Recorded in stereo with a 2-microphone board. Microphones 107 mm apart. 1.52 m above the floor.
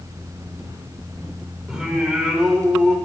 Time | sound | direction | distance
1.7 | singing | 5° right (ahead or behind) | 1.8 m